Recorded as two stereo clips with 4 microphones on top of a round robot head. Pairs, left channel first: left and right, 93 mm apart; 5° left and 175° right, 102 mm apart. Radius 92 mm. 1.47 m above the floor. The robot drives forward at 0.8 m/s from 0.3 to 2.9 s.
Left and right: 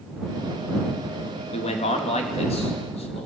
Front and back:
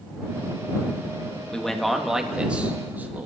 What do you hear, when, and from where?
1.5 s a man speaking: 90° left, 2.5 m; by 3.3 s 110° left, 3 m